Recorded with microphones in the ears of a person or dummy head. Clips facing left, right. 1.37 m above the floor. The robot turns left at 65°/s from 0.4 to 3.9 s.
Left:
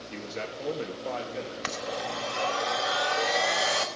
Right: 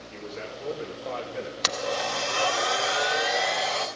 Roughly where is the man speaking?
Ahead left.